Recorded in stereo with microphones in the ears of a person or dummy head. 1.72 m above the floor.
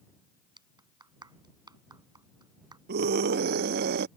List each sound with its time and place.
0.6 s a clap: 25° right (ahead or behind)
2.9 s a scream: 55° right (ahead or behind)